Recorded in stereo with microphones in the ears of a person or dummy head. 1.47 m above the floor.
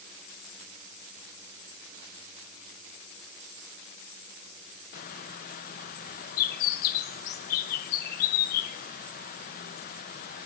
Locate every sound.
4.9 s a bird: 50° left (ahead or behind), 0.9 m